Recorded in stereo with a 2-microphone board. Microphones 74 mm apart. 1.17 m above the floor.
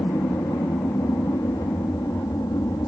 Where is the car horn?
I don't hear a car horn.